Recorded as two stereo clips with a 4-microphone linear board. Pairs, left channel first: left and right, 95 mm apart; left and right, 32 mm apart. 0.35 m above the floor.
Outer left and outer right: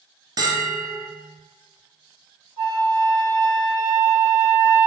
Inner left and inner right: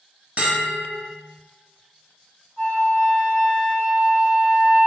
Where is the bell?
45° right (ahead or behind), 0.8 m.